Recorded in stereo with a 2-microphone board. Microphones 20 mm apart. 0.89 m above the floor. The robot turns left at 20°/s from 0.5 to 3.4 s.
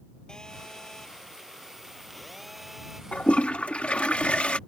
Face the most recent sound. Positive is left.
turn(degrees=85)